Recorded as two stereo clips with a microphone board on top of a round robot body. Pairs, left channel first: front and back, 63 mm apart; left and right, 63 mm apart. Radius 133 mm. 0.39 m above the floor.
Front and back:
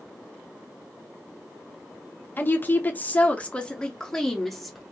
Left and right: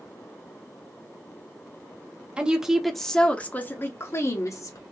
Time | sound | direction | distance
2.4 | a woman speaking | 30° right | 1.0 m